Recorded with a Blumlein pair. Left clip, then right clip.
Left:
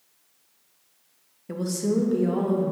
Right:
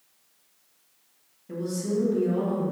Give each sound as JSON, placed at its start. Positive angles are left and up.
{"t": 1.5, "sound": "a woman speaking", "azimuth_deg": 65, "distance_m": 0.5}